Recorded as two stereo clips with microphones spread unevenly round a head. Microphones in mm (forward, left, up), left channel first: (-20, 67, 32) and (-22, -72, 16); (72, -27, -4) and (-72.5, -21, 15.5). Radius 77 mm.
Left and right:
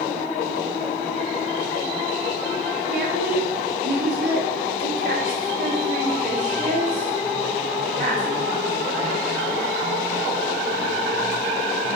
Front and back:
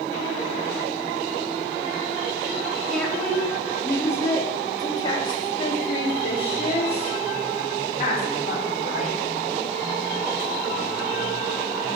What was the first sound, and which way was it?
A woman speaking, 90° right.